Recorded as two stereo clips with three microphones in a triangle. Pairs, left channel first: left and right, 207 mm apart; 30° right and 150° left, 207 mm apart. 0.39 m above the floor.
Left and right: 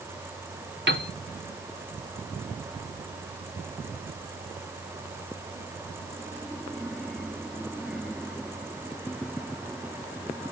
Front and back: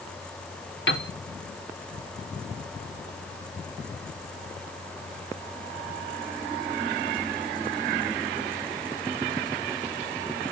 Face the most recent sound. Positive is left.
turn(degrees=-60)